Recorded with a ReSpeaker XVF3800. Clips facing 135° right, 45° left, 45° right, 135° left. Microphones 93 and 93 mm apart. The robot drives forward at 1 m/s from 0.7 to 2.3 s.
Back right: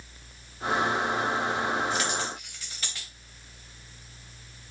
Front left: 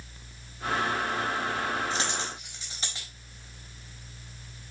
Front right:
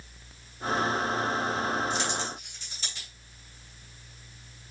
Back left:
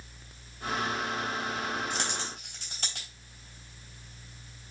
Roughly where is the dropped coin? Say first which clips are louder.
Back right 2 dB, front right 4 dB; left.